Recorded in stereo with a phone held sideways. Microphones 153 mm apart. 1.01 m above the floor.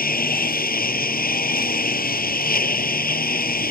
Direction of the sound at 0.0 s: 75° left (ahead or behind).